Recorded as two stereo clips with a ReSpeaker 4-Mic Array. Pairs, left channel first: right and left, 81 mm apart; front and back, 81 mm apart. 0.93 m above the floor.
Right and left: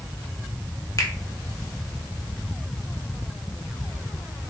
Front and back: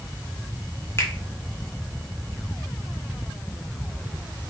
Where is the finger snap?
50° right, 0.8 m.